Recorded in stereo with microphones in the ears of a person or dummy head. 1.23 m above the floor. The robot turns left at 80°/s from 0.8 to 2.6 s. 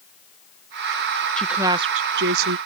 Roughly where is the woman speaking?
Ahead.